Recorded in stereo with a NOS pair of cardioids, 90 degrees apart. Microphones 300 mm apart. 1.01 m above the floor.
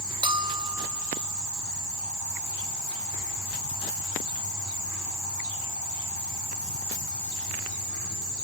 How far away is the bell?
About 2.5 m.